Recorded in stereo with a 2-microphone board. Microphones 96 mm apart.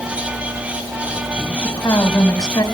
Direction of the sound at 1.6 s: 40° left (ahead or behind).